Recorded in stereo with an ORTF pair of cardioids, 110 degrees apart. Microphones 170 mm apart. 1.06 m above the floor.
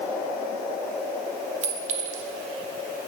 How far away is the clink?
About 0.7 m.